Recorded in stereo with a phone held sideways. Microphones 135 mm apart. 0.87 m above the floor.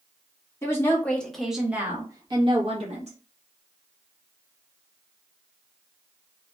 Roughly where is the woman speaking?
Centre.